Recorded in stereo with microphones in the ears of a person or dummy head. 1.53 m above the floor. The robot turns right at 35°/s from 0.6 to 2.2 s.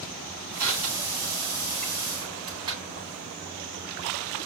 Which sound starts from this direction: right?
Crushing, at 0.6 s.